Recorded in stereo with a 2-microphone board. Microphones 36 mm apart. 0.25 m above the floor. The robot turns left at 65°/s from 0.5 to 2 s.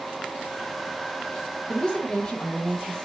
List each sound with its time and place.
1.7 s a woman speaking: 30° left (ahead or behind), 1.2 m; by 3.0 s 15° left (ahead or behind), 1.2 m